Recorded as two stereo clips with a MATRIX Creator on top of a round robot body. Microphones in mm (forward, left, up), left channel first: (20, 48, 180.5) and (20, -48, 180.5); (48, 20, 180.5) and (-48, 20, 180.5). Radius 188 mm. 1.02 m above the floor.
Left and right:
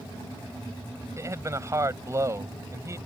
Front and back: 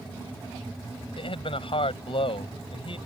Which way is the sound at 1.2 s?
30° right.